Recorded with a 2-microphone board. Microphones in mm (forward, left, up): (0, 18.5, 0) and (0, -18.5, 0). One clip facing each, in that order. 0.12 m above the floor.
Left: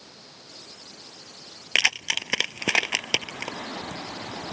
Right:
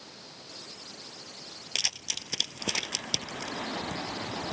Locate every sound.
1.8 s keys jangling: 60° left (ahead or behind)